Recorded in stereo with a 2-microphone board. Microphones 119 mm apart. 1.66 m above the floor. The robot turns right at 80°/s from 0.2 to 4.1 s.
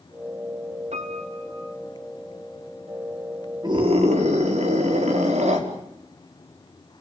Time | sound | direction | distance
0.9 | a piano | 70° right | 3 m
3.6 | a scream | 145° right | 5 m